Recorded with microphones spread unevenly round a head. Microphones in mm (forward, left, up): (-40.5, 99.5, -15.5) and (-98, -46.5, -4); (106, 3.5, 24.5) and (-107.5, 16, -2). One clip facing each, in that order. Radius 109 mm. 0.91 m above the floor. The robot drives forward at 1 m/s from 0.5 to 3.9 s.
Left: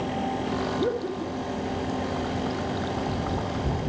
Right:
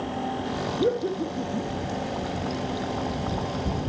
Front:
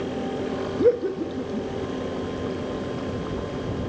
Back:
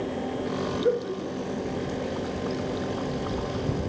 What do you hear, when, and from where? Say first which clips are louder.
0.8 s laughter: right 2 dB, front 7 dB; 40° right, 1.8 m; by 1.7 s 70° right, 1.3 m